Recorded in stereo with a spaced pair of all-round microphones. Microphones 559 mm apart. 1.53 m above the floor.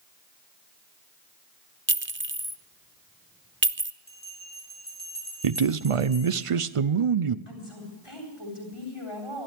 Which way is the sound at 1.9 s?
20° right (ahead or behind).